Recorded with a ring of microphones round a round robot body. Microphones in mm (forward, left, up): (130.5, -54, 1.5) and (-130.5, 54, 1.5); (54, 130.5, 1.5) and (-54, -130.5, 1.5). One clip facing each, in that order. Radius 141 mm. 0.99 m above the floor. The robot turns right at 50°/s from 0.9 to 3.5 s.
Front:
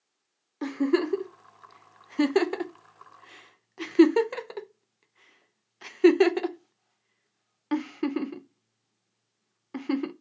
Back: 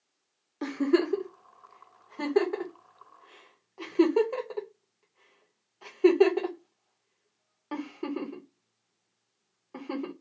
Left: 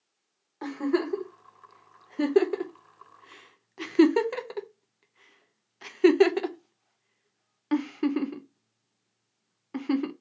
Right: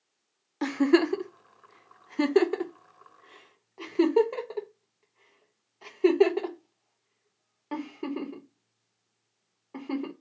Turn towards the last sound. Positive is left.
turn(degrees=20)